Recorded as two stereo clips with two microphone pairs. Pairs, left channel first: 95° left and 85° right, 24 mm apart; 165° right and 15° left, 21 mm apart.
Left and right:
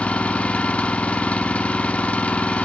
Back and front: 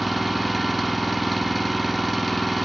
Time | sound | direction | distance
0.0 | an engine running | 105° left | 1.0 m